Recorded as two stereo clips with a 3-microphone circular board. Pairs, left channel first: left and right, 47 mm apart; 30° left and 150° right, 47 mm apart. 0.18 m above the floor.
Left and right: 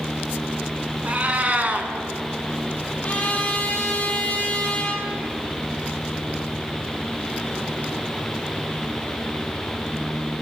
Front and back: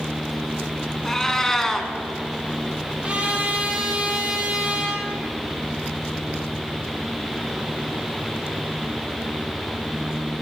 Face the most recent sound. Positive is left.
turn(degrees=150)